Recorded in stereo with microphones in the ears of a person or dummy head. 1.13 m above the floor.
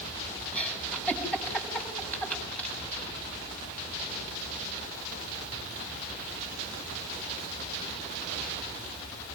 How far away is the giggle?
About 5 m.